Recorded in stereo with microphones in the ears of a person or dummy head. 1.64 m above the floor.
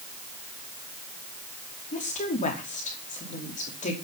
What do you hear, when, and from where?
1.9 s a woman speaking: 40° left (ahead or behind), 4.5 m